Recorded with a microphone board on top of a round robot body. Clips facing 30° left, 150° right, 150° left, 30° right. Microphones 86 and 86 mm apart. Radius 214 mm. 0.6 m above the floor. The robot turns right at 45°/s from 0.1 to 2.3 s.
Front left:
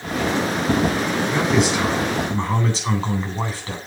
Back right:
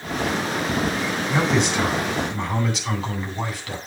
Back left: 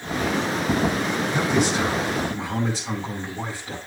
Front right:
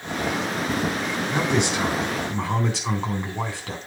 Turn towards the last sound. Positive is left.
turn(degrees=-30)